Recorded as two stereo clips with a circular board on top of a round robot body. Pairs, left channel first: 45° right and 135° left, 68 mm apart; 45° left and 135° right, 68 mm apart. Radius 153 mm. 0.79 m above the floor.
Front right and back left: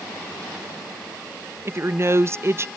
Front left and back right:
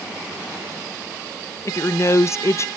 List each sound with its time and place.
1.6 s a woman speaking: 85° left, 0.6 m